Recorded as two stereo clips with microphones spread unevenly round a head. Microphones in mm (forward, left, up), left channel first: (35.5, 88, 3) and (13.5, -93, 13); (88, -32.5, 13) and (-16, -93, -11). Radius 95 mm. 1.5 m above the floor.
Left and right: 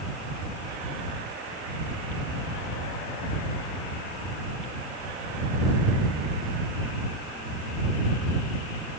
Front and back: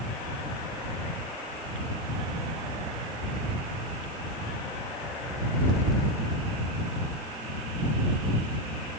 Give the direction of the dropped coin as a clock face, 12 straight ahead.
No dropped coin in this recording.